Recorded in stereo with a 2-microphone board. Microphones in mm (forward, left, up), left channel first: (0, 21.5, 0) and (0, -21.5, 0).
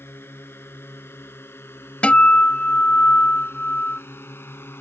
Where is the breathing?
No breathing in this recording.